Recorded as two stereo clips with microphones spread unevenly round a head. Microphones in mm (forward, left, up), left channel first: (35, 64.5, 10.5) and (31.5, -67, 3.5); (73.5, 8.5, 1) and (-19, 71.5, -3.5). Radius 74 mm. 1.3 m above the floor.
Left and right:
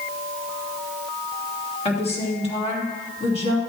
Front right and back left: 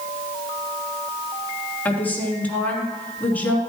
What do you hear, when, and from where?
1.9 s a woman speaking: 45° left, 3 m